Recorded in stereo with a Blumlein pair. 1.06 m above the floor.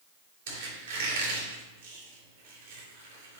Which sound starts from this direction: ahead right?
A squeak, at 0.5 s.